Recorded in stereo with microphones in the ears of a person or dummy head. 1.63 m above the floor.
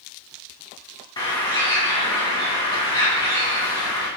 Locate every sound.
1.2 s a bird: 25° left (ahead or behind), 0.9 m